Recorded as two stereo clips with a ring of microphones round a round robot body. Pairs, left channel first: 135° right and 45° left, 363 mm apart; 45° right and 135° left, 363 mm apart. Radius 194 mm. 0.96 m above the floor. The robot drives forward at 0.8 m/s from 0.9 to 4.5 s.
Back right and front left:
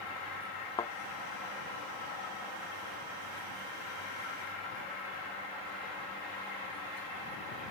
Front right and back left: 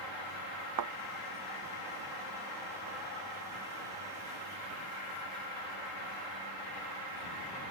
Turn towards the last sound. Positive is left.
turn(degrees=175)